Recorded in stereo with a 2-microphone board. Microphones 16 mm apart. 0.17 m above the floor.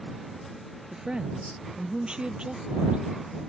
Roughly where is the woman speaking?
Right.